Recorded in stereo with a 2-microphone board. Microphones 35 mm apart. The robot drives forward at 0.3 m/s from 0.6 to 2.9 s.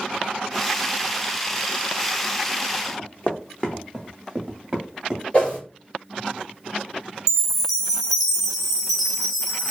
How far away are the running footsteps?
About 0.7 m.